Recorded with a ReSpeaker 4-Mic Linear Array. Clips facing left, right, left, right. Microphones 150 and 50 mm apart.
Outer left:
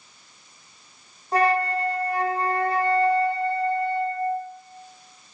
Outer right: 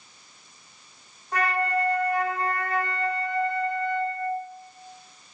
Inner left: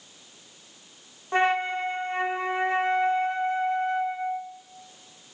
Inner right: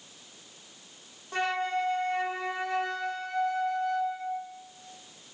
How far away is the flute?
About 0.9 m.